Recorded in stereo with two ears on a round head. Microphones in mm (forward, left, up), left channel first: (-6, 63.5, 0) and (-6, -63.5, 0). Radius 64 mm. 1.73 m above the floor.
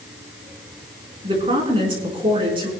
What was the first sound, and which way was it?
A woman speaking, 35° right (ahead or behind).